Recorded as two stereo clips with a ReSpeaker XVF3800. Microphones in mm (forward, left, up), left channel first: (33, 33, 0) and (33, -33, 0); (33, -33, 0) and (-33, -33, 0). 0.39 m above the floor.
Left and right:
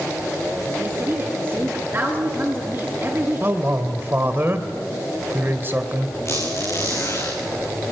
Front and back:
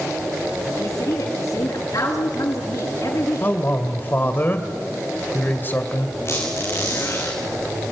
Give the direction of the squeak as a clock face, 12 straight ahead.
10 o'clock.